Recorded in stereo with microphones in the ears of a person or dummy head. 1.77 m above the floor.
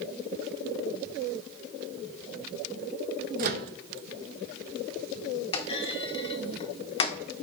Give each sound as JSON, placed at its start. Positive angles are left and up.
{"t": 3.4, "sound": "a microwave", "side_deg": -45, "distance_m": 0.5}
{"t": 5.5, "sound": "a clunk", "side_deg": 30, "distance_m": 0.6}